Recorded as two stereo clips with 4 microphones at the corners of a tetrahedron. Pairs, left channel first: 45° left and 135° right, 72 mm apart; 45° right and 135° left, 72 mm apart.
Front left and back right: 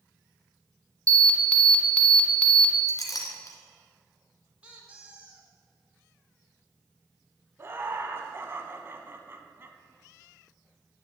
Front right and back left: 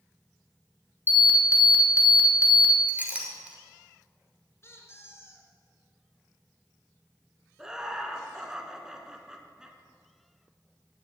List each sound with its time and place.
1.1 s an alarm: 15° right, 1.2 m
2.9 s a clink: 70° left, 1.5 m
4.6 s a squeak: 70° right, 1.3 m
7.6 s laughter: 150° right, 1.1 m